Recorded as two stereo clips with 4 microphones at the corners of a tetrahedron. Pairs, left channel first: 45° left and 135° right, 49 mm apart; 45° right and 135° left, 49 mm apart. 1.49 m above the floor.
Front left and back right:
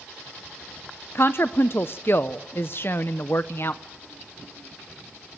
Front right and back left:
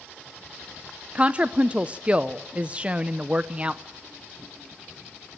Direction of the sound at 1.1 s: 75° left.